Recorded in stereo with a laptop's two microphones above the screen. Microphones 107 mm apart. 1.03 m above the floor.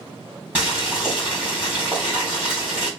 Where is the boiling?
15° right (ahead or behind), 2.5 m.